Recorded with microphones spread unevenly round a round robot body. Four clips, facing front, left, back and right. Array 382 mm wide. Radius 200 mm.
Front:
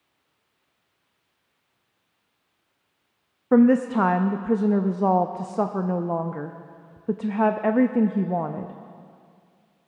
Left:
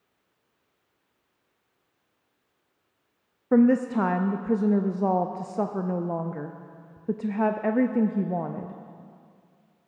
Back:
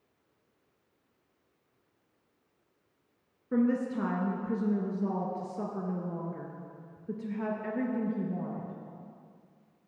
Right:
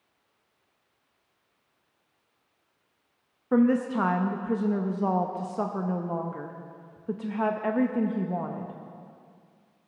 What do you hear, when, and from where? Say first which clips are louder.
3.5 s a woman speaking: left 3 dB, front 11 dB; 15° left, 0.6 m